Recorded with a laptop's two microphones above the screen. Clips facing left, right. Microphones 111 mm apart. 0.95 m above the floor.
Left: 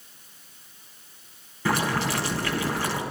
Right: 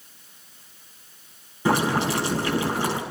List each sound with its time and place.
1.6 s boiling: 15° right (ahead or behind), 6.5 m